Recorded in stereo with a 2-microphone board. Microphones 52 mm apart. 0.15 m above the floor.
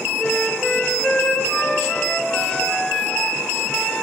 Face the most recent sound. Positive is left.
turn(degrees=20)  # may be behind; listen again after turning